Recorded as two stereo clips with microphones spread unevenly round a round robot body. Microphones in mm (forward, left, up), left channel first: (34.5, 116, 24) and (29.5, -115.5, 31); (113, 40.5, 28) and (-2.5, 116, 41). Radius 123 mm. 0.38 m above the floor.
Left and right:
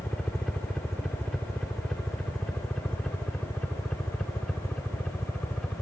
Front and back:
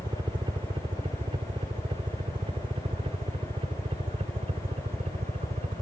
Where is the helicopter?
175° left.